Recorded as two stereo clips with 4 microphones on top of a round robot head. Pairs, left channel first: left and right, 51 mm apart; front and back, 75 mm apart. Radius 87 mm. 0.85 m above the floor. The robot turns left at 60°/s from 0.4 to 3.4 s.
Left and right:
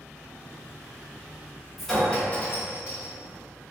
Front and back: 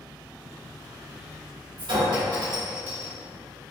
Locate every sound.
1.8 s a clink: straight behind, 1.4 m; by 3.1 s 100° left, 1.4 m